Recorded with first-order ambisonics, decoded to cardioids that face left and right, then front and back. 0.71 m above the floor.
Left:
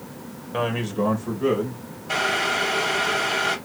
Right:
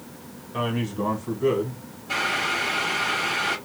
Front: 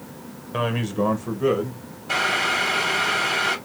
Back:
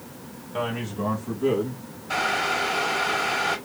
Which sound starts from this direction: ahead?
Boiling, at 2.1 s.